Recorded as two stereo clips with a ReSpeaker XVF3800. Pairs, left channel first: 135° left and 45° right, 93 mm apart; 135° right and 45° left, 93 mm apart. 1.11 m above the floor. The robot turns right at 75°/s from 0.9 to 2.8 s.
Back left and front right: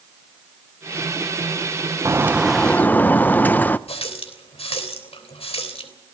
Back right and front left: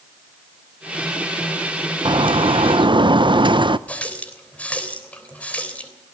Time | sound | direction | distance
2.0 | a bird | 10° left | 0.7 m
3.9 | a running tap | 150° left | 3 m